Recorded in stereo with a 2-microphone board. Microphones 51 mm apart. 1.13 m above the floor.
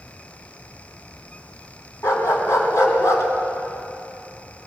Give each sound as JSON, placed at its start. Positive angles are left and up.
{"t": 2.0, "sound": "a dog barking", "side_deg": 65, "distance_m": 3.0}